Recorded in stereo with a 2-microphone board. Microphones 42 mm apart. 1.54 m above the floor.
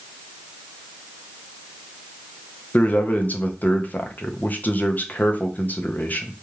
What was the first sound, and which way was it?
A man speaking, 40° left (ahead or behind).